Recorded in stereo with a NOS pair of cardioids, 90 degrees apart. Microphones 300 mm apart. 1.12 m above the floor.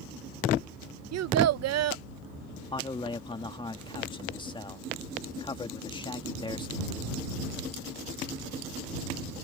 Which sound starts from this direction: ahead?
A man speaking, at 2.7 s.